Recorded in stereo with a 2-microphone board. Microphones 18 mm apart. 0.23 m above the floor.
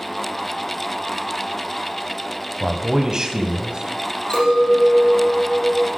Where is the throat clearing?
No throat clearing in this recording.